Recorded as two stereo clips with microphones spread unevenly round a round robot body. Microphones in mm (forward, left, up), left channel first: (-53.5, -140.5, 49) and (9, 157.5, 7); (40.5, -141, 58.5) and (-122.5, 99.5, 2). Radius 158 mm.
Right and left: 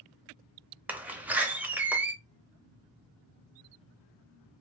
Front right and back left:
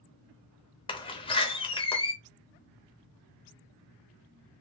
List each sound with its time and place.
0.9 s a door slam: 20° left, 0.7 m